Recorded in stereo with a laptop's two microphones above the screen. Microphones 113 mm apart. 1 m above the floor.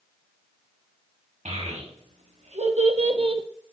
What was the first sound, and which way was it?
A child speaking, 85° right.